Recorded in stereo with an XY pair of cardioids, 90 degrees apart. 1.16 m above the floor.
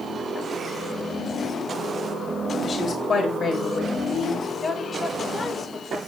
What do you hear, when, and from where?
2.6 s a woman speaking: 40° left, 3.5 m
4.6 s a woman speaking: 15° left, 5 m